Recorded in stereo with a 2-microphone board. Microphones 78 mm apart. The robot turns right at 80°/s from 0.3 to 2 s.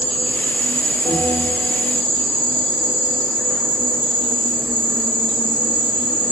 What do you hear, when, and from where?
0.0 s an insect: 15° left, 0.8 m; by 6.3 s 155° left, 0.8 m
1.1 s a bell: 110° left, 1.8 m; by 1.8 s 170° left, 1.8 m